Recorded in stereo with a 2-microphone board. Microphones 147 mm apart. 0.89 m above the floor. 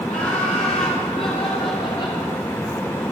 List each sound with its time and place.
0.1 s laughter: 55° left (ahead or behind), 4.5 m; by 2.2 s 30° left (ahead or behind), 2.5 m